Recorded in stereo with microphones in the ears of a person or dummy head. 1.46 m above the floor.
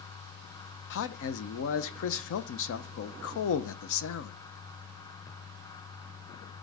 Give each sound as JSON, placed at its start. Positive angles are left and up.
{"t": 0.9, "sound": "a man speaking", "side_deg": 70, "distance_m": 0.8}